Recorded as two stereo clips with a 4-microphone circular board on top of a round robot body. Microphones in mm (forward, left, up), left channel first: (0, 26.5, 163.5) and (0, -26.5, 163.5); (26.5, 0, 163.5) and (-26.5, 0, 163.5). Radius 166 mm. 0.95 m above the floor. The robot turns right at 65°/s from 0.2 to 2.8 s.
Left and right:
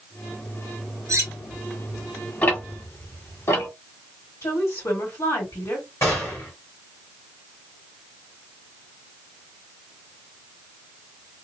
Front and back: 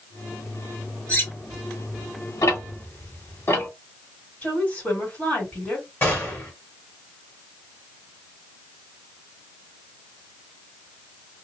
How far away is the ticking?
About 1.7 m.